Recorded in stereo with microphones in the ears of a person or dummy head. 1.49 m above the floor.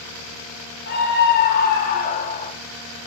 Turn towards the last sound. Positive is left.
turn(degrees=25)  # may be behind; listen again after turning